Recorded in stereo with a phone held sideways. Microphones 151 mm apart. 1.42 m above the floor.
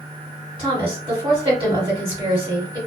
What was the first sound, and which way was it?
A woman speaking, 30° right (ahead or behind).